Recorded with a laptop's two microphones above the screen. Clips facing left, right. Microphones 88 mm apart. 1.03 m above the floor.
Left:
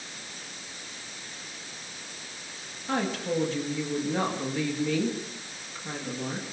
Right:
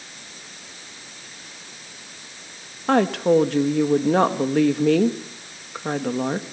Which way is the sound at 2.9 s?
70° right (ahead or behind).